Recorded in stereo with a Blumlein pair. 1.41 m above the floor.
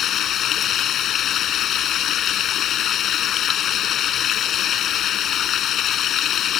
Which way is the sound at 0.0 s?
30° left.